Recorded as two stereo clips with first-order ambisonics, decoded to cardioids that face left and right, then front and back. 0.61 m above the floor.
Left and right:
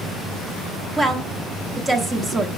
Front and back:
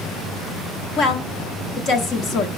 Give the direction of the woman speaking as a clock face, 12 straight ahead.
1 o'clock.